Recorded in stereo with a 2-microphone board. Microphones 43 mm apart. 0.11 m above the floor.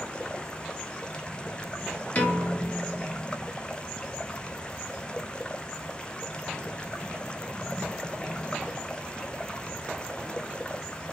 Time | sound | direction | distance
0.0 | running water | 20° left (ahead or behind) | 0.7 m
2.1 | a piano | 35° left (ahead or behind) | 2 m